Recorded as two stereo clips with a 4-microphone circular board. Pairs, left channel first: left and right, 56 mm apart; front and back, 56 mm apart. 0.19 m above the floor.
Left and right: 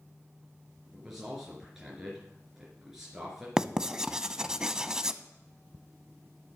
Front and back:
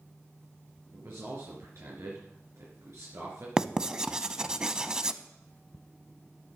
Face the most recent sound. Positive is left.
turn(degrees=-140)